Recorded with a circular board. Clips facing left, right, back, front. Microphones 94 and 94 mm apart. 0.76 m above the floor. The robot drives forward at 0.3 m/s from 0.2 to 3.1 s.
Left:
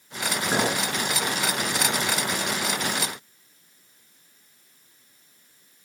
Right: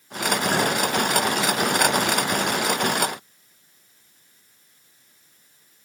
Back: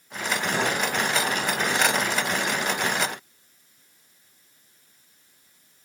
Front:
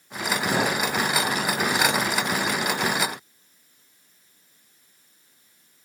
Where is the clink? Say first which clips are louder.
Left 1 dB, front 2 dB; 5° right, 5.5 m.